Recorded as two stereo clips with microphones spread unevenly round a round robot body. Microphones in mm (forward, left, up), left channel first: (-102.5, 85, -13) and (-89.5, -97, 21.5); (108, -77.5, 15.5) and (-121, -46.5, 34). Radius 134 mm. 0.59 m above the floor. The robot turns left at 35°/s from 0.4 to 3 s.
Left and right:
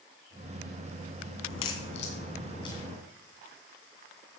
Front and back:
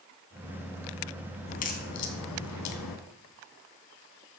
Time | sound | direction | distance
1.5 | a crack | 60° left | 2.0 m